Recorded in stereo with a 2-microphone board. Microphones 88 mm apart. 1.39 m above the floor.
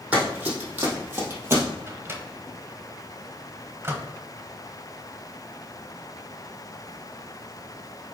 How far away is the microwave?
About 1.1 m.